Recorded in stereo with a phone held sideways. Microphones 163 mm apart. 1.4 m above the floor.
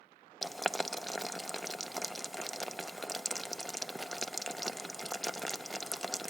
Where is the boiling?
Centre (ahead or behind), 0.6 m.